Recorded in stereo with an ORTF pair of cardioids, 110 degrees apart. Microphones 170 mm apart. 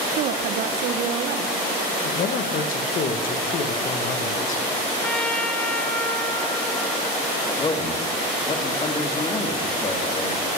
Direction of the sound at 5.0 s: 5° left.